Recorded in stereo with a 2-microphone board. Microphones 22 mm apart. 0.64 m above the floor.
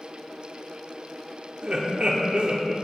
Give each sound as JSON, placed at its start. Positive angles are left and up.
{"t": 1.6, "sound": "laughter", "side_deg": -50, "distance_m": 1.1}